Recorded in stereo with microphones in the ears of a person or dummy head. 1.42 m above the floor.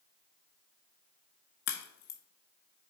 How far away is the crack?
About 1.0 m.